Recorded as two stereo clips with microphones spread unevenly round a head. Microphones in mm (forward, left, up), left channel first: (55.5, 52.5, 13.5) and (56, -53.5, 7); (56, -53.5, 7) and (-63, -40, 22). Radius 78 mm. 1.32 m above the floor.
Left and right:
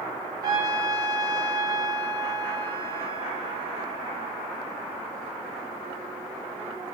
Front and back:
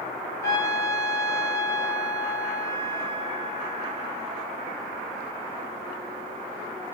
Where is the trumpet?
70° right, 0.7 m.